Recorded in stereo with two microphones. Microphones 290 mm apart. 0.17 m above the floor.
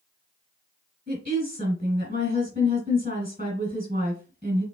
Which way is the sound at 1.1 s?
30° right (ahead or behind).